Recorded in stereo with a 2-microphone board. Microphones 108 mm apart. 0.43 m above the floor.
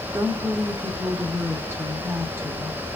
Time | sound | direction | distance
0.1 | a woman speaking | 20° right (ahead or behind) | 0.9 m